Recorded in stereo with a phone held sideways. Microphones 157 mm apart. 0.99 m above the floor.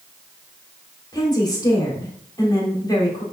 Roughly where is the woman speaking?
Left.